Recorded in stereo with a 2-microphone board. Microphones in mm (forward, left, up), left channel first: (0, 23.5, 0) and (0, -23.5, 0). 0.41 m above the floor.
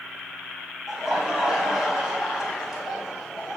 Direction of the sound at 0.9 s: 10° right (ahead or behind).